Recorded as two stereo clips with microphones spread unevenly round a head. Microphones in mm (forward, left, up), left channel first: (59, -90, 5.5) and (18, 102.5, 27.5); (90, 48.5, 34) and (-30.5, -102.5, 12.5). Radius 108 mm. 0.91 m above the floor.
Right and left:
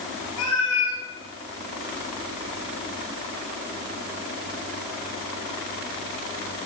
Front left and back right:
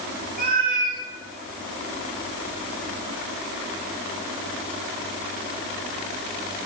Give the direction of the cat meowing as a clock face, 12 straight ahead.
3 o'clock.